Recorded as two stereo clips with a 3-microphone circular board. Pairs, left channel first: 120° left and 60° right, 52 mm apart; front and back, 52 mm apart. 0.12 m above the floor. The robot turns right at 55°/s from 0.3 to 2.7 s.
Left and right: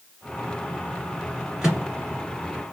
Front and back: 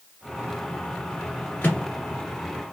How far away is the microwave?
About 1.1 m.